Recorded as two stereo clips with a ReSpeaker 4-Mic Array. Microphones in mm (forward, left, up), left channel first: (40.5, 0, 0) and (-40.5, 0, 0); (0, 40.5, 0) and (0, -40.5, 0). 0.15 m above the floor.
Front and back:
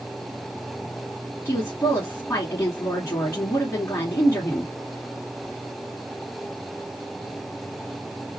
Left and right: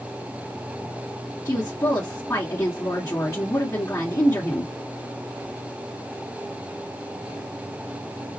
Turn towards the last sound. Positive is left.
turn(degrees=40)